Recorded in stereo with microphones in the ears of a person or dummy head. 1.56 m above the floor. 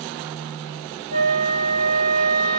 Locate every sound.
1.1 s a flute: 60° right (ahead or behind), 1.2 m